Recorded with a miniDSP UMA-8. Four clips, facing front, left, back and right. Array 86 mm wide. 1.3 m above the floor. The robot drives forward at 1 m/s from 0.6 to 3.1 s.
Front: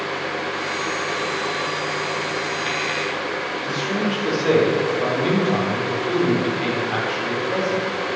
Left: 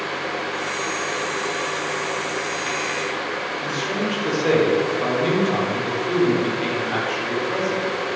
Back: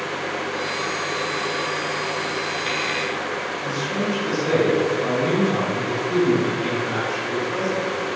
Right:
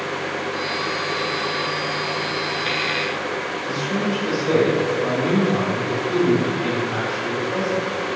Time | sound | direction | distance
3.6 | a man speaking | 45° left | 4 m